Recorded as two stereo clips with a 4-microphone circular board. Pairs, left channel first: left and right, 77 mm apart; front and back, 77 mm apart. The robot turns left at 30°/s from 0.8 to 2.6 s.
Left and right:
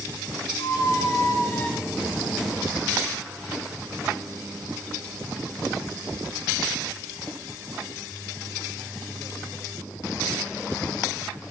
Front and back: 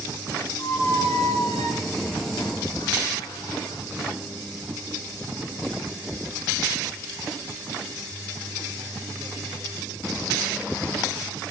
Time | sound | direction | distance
0.6 | a squeak | 50° left | 1.7 m